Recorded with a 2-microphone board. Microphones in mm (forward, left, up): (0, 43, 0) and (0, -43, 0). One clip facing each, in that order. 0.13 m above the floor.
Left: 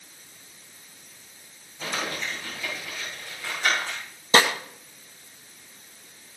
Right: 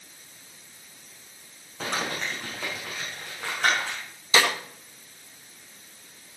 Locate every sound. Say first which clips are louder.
1.8 s crumpling: right 1 dB; 80° right, 8 m
4.3 s a snare drum: left 3 dB; 50° left (ahead or behind), 2 m